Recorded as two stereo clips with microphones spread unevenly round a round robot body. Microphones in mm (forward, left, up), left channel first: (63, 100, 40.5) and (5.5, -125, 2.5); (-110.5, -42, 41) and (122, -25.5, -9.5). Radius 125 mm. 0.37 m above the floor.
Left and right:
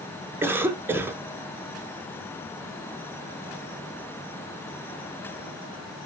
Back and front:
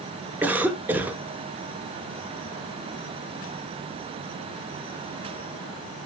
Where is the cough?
50° right, 1.5 m.